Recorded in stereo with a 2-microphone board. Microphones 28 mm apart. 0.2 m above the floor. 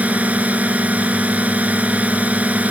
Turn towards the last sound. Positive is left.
turn(degrees=-65)  # may be behind; listen again after turning